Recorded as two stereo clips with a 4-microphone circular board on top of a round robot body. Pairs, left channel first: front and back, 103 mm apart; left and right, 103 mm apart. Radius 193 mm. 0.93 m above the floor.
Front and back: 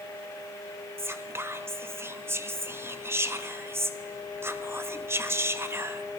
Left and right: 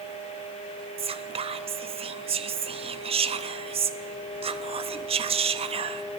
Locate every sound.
1.0 s whispering: 115° right, 0.5 m